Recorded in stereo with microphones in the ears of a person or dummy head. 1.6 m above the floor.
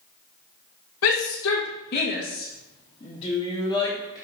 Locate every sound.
1.0 s a shout: 80° left, 2.0 m; by 4.2 s 10° left (ahead or behind), 3 m